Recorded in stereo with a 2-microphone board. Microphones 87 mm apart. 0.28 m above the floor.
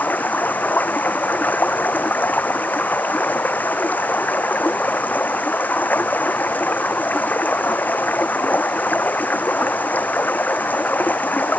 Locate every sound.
0.0 s running water: 20° left (ahead or behind)